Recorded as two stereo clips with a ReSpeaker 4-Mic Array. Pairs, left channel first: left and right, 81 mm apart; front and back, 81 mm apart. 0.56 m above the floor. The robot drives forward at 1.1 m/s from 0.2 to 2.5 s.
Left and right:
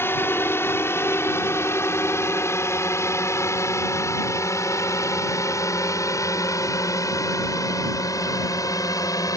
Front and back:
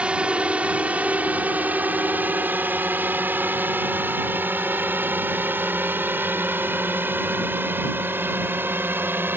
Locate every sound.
0.0 s a drone: 115° left; by 9.4 s 120° left